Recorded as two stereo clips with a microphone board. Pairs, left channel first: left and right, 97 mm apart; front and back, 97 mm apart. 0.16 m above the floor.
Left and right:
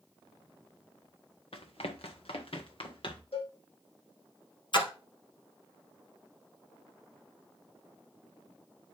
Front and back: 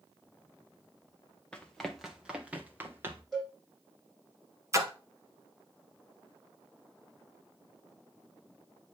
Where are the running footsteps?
80° left, 1.4 m; by 3.2 s 115° left, 1.9 m.